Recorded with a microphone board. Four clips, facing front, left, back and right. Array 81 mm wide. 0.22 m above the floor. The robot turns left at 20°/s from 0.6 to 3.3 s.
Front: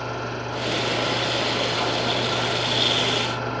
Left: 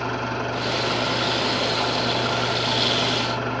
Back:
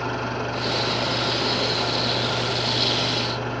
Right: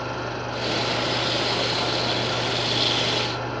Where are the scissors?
No scissors in this recording.